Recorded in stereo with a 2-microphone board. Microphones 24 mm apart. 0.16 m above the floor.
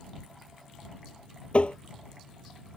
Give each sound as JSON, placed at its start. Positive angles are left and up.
{"t": 1.5, "sound": "tapping", "side_deg": 55}